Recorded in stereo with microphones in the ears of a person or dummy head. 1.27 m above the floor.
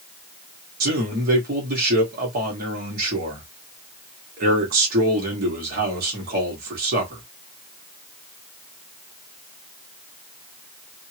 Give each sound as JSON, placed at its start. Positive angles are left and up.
{"t": 0.8, "sound": "a man speaking", "side_deg": -50, "distance_m": 2.0}